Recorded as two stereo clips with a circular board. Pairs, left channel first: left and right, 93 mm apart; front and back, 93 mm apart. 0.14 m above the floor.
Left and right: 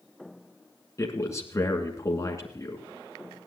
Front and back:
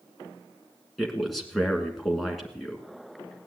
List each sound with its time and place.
1.0 s a man speaking: 90° left, 1.7 m